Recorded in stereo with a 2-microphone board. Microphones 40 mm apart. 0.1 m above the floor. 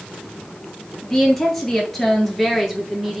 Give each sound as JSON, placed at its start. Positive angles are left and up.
{"t": 1.0, "sound": "a woman speaking", "side_deg": 10, "distance_m": 1.7}